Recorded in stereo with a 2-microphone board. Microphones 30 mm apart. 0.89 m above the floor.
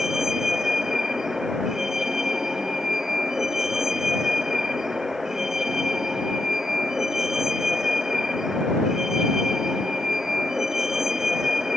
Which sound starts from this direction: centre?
A vehicle, at 0.0 s.